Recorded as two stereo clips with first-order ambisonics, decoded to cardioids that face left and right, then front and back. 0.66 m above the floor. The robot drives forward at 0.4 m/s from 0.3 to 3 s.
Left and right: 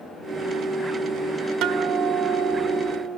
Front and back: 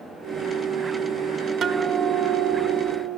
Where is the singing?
No singing in this recording.